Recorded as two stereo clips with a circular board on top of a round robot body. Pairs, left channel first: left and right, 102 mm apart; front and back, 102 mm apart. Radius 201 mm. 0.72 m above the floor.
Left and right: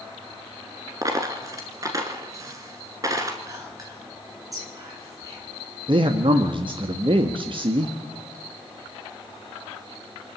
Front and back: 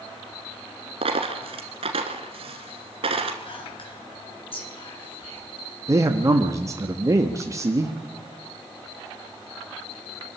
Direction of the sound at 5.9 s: 120° right.